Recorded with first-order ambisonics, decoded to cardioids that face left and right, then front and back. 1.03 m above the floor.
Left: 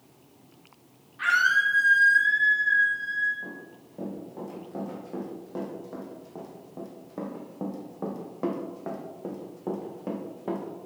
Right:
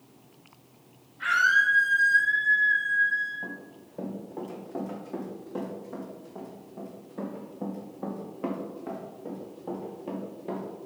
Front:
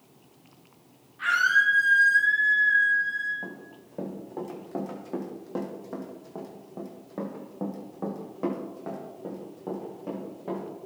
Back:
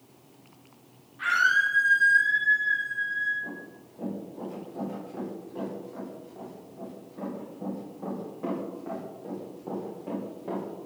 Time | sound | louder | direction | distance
1.2 | a scream | even, front 1 dB | 90° left | 2.5 m
3.4 | running footsteps | right 1 dB, back 2 dB | 15° right | 3.5 m